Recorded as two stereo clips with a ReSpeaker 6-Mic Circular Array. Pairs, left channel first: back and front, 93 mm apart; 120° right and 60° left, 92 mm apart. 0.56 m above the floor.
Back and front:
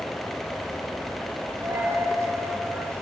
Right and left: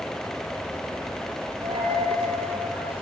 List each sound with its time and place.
1.6 s a dropped coin: 60° left, 8 m